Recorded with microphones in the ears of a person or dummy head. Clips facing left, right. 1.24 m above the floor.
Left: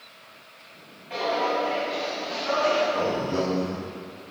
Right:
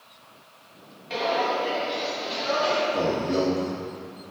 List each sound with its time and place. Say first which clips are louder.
1.1 s footsteps: even; 40° right (ahead or behind), 1.5 m; by 2.8 s 25° right (ahead or behind), 2.5 m
2.9 s a man speaking: right 1 dB; 25° right (ahead or behind), 1.2 m